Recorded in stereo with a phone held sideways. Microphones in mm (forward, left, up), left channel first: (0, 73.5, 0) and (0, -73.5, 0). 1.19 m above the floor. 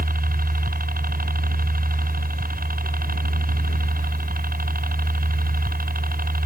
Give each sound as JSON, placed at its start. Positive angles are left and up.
{"t": 0.0, "sound": "a helicopter", "side_deg": -75}